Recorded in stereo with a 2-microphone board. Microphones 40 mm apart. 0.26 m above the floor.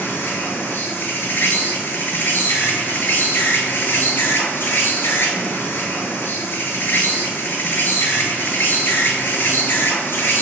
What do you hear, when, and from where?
0.0 s an insect: 70° left (ahead or behind), 0.7 m